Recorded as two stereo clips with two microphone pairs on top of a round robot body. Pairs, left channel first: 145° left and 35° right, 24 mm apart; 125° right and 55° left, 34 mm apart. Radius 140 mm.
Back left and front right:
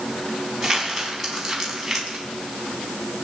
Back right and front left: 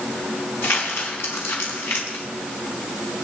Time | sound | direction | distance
0.6 | crumpling | 115° right | 4.5 m